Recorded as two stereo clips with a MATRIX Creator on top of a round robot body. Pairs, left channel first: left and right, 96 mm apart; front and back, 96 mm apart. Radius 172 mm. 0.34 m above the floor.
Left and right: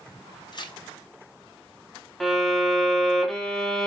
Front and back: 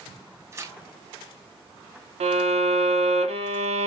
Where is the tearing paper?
120° left, 1.3 m.